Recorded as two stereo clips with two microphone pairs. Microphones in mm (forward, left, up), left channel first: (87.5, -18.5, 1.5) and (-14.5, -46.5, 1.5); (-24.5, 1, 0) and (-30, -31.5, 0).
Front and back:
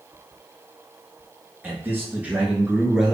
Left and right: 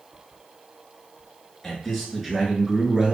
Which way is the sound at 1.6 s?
150° left.